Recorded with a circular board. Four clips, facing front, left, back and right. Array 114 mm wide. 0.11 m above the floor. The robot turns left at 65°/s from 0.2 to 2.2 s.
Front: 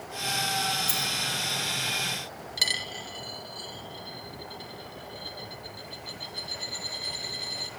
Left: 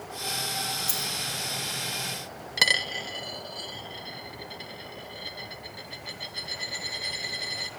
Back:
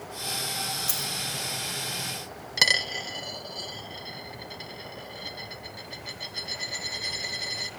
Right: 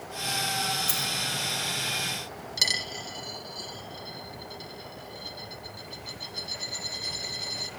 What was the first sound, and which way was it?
A dropped coin, 140° right.